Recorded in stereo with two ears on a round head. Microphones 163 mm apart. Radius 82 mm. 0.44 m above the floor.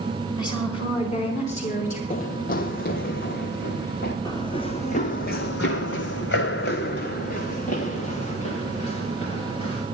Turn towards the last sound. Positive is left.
turn(degrees=30)  # may be behind; listen again after turning